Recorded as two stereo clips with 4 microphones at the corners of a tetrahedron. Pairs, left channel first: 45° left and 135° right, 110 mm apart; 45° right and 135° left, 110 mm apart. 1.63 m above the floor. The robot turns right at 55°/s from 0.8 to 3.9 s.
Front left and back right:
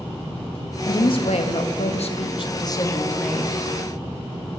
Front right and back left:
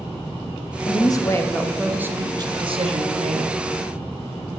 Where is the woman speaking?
5° right, 0.8 m; by 3.6 s 145° left, 0.8 m.